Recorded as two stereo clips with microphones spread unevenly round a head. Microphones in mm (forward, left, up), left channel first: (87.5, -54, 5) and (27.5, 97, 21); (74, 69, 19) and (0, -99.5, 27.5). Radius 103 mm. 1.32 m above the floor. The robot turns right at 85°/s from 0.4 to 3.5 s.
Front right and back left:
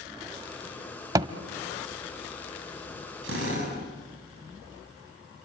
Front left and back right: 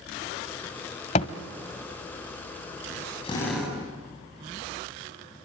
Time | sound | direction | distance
1.1 | a thud | 80° left | 1.3 m
3.2 | a drill | 130° left | 7 m